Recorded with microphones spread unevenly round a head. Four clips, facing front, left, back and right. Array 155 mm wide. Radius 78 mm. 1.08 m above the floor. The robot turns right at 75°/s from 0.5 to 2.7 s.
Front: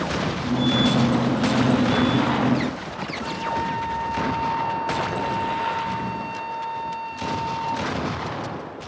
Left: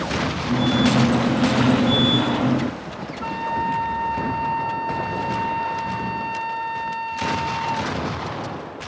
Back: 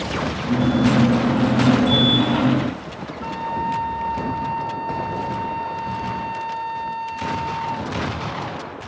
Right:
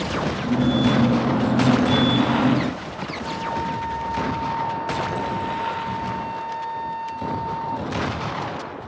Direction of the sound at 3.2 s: 110° left.